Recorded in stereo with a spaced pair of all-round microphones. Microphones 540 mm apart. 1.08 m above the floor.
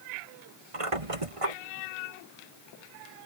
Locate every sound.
0.7 s a squeak: 75° right (ahead or behind)